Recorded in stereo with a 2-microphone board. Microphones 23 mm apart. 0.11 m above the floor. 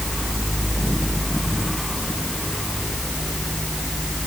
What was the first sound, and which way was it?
Only background noise.